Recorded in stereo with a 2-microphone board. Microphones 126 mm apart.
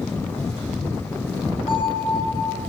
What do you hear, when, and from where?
1.7 s a bell: 45° left (ahead or behind), 4.5 m